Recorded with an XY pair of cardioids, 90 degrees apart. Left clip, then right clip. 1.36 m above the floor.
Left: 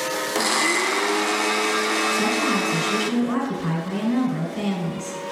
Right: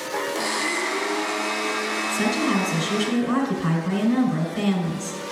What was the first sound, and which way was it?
A blender, 65° left.